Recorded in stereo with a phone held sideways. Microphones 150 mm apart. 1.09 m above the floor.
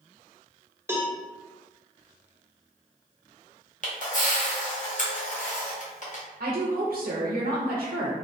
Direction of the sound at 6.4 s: 70° right (ahead or behind).